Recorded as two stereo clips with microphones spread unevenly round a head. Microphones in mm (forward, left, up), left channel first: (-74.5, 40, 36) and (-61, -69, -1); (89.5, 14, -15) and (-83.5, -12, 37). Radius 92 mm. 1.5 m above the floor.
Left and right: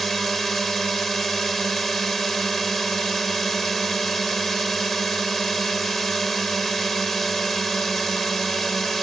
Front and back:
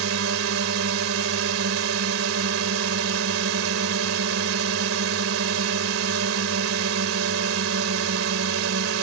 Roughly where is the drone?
Behind.